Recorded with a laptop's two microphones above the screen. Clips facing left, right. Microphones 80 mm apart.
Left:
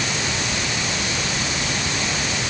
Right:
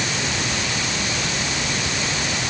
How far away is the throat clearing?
No throat clearing in this recording.